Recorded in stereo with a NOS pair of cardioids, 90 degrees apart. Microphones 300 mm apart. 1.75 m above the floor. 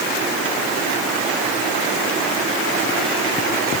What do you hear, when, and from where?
Only background noise.